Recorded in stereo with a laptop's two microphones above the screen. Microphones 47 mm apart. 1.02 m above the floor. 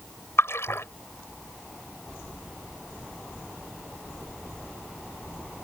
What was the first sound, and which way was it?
A splash, 60° left (ahead or behind).